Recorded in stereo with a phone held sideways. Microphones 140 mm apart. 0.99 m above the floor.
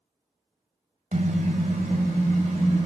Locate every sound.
1.1 s a car horn: 70° right (ahead or behind), 2 m; by 2.9 s 75° right (ahead or behind), 2 m